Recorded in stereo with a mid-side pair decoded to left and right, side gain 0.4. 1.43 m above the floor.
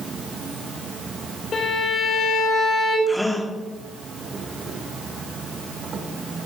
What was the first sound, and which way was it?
An insect, 55° right.